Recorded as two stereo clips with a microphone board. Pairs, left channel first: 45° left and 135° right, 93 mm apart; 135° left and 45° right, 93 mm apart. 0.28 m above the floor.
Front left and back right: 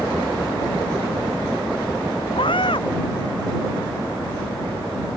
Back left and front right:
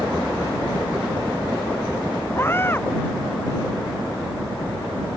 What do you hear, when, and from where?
2.4 s a scream: 70° left